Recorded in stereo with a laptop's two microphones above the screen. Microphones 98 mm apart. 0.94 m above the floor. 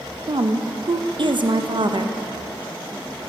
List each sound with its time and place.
0.3 s a woman speaking: 55° right (ahead or behind), 0.5 m